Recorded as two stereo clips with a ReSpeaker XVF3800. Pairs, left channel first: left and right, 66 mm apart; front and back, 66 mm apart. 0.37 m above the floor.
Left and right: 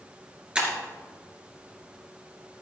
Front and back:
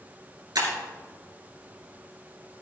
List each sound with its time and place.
0.6 s breaking glass: 165° right, 2.5 m